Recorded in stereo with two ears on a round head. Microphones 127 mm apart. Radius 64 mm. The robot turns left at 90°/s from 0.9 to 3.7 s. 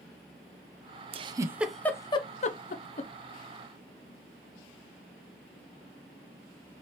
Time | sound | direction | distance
1.1 | a giggle | 40° right (ahead or behind) | 0.5 m